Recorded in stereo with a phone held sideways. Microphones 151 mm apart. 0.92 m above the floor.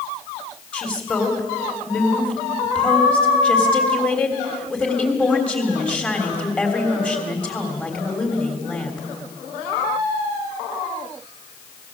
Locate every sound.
0.7 s a woman speaking: 10° left (ahead or behind), 3.5 m